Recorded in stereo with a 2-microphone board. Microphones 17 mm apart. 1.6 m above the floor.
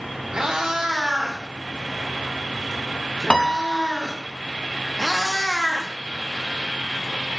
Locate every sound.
0.3 s a cat meowing: 60° right (ahead or behind), 3 m
3.3 s a piano: 60° left (ahead or behind), 0.7 m
5.0 s a cat meowing: 35° left (ahead or behind), 1.2 m